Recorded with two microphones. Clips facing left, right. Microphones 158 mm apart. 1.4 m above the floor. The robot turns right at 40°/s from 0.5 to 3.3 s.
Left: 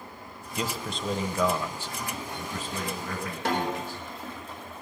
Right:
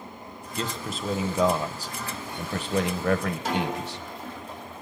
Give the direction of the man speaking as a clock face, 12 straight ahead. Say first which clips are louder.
Even; 6 o'clock.